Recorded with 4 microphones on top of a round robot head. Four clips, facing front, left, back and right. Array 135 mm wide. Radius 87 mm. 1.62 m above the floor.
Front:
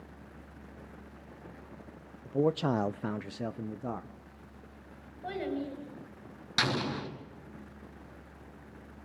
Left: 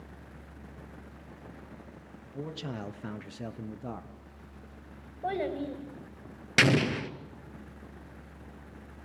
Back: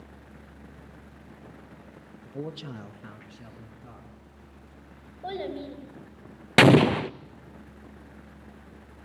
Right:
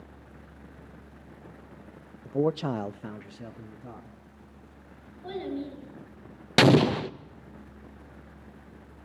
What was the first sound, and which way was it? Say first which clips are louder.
A man speaking: right 13 dB, front 10 dB; 70° right.